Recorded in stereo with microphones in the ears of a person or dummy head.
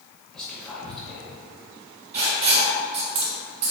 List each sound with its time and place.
0.3 s whispering: 5° left (ahead or behind), 0.6 m
2.1 s writing: 30° right (ahead or behind), 0.9 m